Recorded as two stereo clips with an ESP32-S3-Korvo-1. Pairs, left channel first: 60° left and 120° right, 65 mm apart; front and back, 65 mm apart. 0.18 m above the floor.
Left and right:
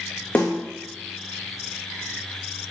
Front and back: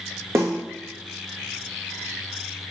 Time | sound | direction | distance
0.3 | a snare drum | 130° left | 2.5 m